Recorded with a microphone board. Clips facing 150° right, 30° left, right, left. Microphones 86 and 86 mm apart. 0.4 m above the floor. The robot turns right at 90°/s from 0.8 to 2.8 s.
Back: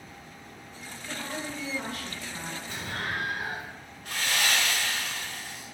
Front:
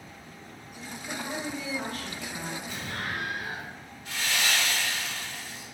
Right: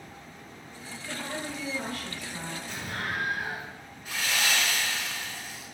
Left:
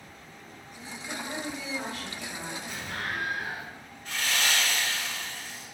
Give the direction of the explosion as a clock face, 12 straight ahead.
6 o'clock.